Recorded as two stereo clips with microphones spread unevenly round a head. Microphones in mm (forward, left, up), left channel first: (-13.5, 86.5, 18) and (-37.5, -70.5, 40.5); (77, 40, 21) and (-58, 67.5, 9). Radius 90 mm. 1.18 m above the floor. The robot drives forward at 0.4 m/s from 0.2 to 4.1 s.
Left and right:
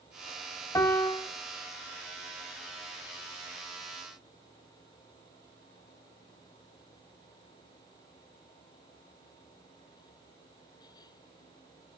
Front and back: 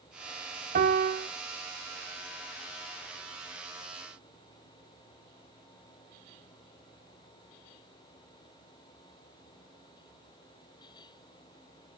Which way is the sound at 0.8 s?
155° left.